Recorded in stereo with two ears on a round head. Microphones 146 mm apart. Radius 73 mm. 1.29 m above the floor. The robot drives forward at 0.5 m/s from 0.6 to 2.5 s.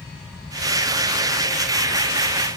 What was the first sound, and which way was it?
Only background noise.